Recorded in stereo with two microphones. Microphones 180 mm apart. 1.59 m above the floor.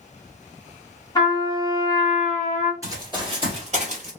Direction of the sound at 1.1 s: 20° left (ahead or behind).